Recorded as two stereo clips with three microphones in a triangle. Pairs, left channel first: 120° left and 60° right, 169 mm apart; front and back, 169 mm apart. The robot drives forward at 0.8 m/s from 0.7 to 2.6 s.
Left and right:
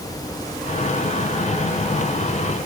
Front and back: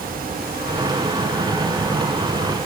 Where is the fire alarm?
I don't hear a fire alarm.